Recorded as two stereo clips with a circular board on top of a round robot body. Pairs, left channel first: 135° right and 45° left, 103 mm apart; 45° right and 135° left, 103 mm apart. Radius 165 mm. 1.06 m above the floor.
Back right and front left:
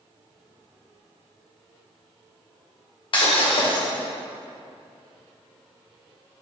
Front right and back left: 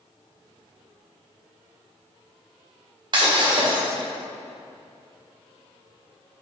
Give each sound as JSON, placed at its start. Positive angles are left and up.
{"t": 3.1, "sound": "breaking glass", "azimuth_deg": 180, "distance_m": 1.9}